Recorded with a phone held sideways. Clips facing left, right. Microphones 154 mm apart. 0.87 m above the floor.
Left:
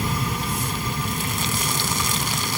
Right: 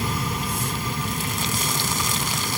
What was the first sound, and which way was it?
Only background noise.